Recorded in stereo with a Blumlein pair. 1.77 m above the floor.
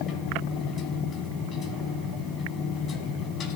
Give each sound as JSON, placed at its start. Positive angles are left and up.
{"t": 0.0, "sound": "a machine running", "azimuth_deg": 30, "distance_m": 2.5}